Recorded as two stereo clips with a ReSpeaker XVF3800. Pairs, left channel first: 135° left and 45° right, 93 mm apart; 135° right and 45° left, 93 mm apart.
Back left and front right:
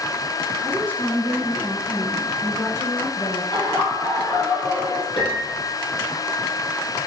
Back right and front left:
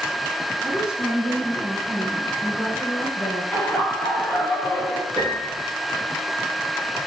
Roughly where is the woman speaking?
Left.